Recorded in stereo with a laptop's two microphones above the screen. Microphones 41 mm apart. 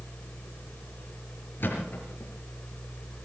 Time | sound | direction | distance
0.0 | a fan | 40° left (ahead or behind) | 1.2 m
1.6 | a thud | 60° left (ahead or behind) | 5 m